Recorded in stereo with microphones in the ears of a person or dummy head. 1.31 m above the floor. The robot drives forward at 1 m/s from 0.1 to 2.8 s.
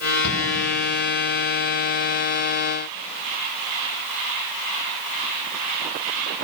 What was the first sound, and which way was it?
A shout, 85° left.